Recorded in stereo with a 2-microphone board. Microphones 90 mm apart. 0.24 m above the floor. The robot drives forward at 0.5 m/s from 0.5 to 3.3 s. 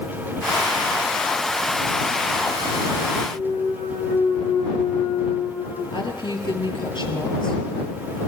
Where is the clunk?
55° left (ahead or behind), 7.5 m.